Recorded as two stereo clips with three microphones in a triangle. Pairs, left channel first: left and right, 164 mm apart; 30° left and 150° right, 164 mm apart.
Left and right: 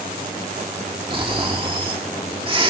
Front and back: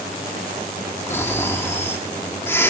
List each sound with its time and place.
1.1 s snoring: 40° right, 1.7 m